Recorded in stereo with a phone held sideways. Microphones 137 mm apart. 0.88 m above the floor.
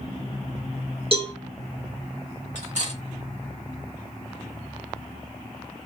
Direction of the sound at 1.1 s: 45° right (ahead or behind).